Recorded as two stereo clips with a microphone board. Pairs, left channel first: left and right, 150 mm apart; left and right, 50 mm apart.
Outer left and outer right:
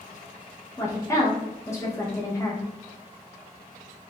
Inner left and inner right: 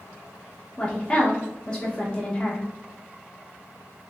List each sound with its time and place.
0.8 s a woman speaking: 20° left (ahead or behind), 0.7 m